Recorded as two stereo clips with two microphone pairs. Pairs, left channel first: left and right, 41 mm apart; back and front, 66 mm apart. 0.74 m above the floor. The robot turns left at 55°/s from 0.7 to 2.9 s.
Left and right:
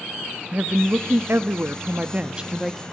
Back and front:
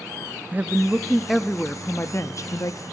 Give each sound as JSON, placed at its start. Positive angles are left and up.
{"t": 0.5, "sound": "a woman speaking", "azimuth_deg": -60, "distance_m": 0.7}